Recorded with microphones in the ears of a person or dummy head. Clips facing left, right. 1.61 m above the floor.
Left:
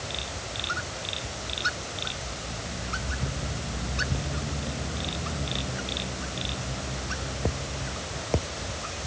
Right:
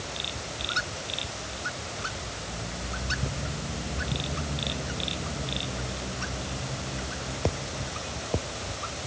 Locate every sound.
Only background noise.